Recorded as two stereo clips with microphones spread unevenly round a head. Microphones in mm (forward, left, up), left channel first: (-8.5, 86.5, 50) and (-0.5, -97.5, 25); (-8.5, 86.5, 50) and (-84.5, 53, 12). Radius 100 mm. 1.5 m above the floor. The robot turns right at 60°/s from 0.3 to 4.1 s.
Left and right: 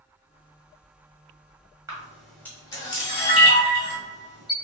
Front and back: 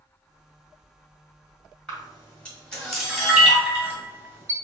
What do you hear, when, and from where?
1.9 s a camera shutter: 5° right, 1.5 m; by 4.5 s 125° left, 1.5 m